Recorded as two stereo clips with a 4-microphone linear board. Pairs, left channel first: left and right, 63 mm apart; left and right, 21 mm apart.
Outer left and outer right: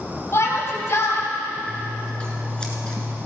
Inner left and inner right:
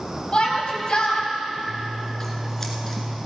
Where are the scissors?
15° left (ahead or behind), 1.8 m.